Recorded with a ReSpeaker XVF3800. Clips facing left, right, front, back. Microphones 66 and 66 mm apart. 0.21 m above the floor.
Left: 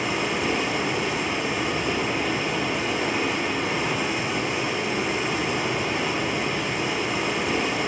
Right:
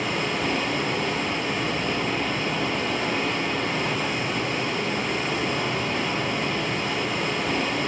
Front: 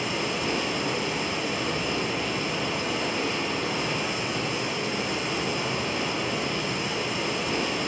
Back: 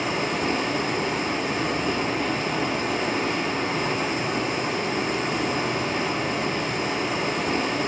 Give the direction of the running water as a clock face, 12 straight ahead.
6 o'clock.